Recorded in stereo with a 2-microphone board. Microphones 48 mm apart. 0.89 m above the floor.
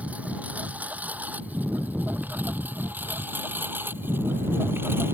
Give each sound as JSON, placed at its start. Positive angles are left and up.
{"t": 0.0, "sound": "a lawn mower", "side_deg": -30}